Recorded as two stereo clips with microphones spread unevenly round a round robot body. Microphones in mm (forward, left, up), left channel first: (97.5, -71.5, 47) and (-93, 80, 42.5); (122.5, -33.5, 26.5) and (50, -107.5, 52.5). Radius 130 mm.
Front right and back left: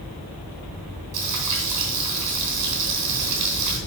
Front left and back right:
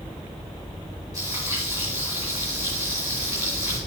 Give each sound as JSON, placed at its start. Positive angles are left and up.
{"t": 1.1, "sound": "frying", "azimuth_deg": 130, "distance_m": 3.0}